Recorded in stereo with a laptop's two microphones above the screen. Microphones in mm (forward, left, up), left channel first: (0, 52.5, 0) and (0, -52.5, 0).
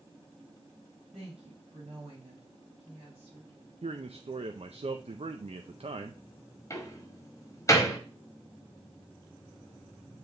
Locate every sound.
1.1 s a woman speaking: 75° right (ahead or behind), 5 m; by 3.5 s 60° right (ahead or behind), 5.5 m
3.8 s a man speaking: 70° right (ahead or behind), 0.5 m
6.7 s a door slam: 30° left (ahead or behind), 1.1 m